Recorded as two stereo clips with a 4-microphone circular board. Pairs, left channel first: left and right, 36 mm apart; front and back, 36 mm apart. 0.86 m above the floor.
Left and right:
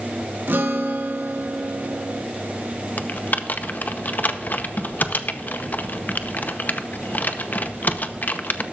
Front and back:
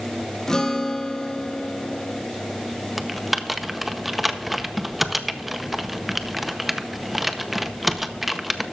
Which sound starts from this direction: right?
A guitar, at 0.5 s.